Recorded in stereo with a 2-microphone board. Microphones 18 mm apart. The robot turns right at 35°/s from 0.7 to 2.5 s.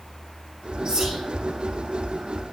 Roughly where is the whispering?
Right.